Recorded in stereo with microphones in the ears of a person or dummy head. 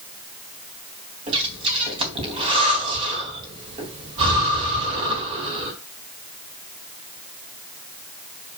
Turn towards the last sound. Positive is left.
turn(degrees=-35)  # may be behind; listen again after turning